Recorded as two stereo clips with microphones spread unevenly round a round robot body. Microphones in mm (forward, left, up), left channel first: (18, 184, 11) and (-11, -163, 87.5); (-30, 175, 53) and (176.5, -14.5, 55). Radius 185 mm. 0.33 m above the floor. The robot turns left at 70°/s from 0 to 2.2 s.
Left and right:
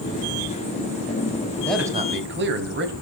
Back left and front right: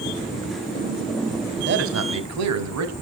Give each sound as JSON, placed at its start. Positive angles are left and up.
{"t": 1.6, "sound": "a man speaking", "azimuth_deg": 5, "distance_m": 3.0}